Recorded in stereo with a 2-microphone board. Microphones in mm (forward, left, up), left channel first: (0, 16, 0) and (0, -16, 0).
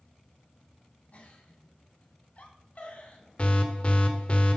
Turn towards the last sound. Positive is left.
turn(degrees=40)  # may be behind; listen again after turning